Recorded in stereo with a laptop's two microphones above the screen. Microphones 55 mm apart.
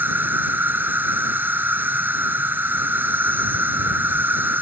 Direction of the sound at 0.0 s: 40° right (ahead or behind).